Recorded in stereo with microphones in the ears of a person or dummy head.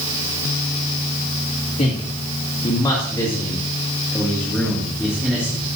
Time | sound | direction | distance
1.8 | a man speaking | 35° left (ahead or behind) | 2 m